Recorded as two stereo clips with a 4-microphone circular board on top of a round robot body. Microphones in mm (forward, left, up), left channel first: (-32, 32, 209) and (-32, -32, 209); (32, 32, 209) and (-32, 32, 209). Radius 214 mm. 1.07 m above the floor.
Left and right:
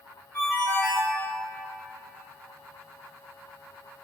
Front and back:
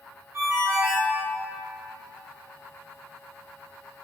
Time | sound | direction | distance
0.3 | a ringtone | 140° left | 0.6 m